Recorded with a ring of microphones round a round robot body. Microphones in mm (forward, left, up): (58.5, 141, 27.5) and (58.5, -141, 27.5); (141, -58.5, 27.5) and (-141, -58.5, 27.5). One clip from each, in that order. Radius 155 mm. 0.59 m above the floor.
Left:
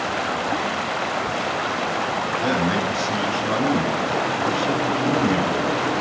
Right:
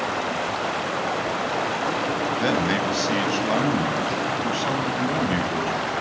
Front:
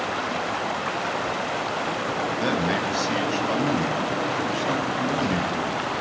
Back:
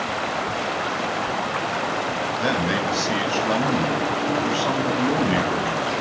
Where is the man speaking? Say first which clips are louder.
Even, back 3 dB; 95° right, 4.5 m; by 6.0 s 135° right, 5 m.